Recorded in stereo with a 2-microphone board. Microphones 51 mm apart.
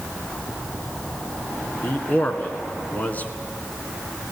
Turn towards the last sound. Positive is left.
turn(degrees=35)  # may be behind; listen again after turning